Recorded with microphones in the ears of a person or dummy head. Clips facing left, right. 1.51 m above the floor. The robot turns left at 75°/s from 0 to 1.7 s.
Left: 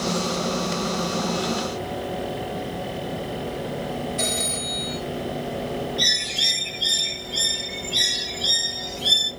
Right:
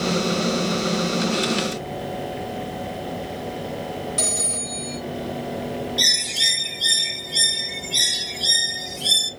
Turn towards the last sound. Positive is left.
turn(degrees=-55)  # may be behind; listen again after turning